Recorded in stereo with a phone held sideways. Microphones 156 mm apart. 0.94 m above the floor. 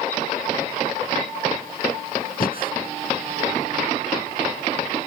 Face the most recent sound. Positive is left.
turn(degrees=75)  # may be behind; listen again after turning